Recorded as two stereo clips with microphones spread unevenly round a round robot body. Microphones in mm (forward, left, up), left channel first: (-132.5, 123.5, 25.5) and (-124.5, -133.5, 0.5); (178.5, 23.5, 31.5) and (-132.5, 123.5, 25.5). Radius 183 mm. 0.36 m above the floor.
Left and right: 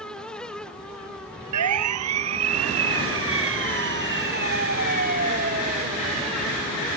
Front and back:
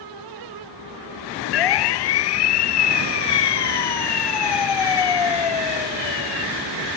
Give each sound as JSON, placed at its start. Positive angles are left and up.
{"t": 1.5, "sound": "a siren", "azimuth_deg": -45}